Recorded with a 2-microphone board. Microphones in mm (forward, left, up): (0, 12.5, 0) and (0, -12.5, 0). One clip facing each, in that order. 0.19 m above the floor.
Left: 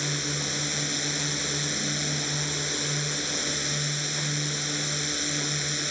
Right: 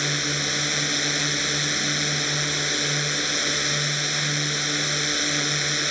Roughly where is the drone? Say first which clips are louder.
Right 5 dB; right.